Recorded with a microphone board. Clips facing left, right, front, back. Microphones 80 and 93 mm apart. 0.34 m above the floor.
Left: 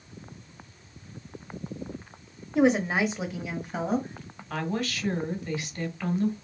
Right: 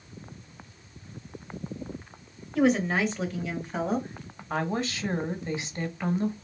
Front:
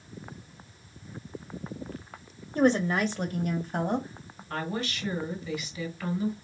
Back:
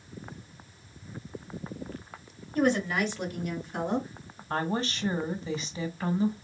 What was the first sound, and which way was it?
A woman speaking, 35° left.